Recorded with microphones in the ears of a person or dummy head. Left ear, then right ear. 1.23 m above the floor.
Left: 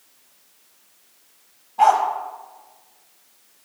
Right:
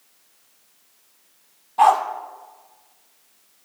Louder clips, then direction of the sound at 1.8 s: Even; 55° right (ahead or behind).